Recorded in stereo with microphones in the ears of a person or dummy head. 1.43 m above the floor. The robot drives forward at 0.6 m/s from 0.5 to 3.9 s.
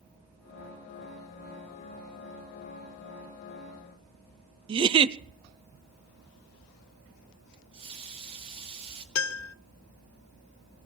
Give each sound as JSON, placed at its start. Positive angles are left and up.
{"t": 4.7, "sound": "a giggle", "side_deg": -30, "distance_m": 0.6}
{"t": 7.5, "sound": "a running tap", "side_deg": -35, "distance_m": 2.0}
{"t": 9.2, "sound": "a piano", "side_deg": 75, "distance_m": 0.6}